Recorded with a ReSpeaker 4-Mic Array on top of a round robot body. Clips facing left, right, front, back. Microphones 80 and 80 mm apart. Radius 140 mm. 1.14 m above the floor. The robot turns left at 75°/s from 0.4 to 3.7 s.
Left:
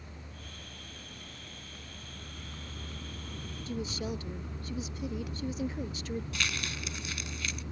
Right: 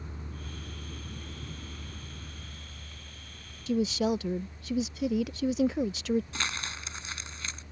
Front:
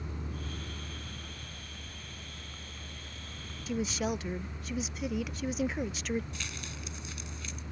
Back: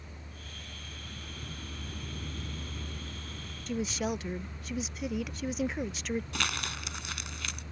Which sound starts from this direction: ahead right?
A vehicle, at 0.0 s.